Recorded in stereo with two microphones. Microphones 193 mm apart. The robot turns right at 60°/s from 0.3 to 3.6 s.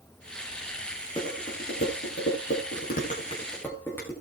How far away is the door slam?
I don't hear a door slam.